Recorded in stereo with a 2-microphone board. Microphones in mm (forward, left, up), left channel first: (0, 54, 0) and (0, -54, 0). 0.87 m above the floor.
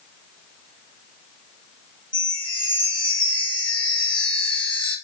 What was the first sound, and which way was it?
A chime, 50° left (ahead or behind).